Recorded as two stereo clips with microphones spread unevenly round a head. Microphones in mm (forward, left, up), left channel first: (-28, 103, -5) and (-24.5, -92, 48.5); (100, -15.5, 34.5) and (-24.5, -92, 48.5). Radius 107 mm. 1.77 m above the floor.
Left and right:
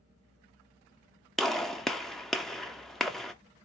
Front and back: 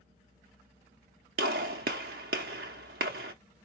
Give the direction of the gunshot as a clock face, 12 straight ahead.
6 o'clock.